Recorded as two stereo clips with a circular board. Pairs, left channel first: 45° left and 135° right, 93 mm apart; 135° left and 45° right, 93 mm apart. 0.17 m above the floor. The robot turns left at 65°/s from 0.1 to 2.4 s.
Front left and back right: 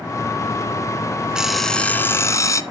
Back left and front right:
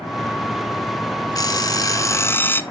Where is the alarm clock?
150° left, 0.6 m; by 2.6 s 80° left, 0.6 m.